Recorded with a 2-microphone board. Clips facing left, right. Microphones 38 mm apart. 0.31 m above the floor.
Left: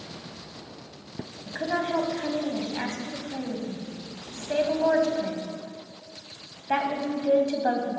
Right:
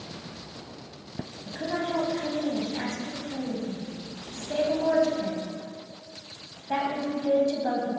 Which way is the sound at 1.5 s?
40° left (ahead or behind).